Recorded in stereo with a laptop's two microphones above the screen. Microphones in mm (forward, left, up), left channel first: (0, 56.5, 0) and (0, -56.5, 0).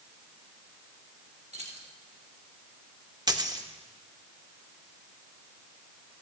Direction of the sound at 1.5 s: 70° right (ahead or behind).